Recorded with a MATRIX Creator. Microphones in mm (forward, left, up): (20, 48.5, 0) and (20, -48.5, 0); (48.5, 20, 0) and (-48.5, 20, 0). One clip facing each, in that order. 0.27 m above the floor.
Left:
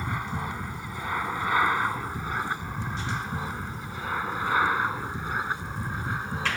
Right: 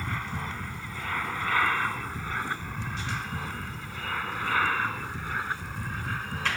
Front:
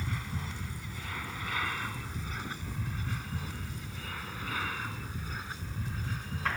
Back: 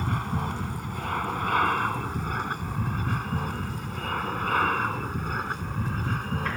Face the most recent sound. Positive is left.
turn(degrees=160)